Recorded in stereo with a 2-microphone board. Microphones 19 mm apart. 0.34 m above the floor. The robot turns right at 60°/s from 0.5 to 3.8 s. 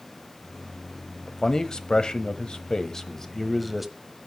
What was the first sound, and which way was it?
A man speaking, 35° left.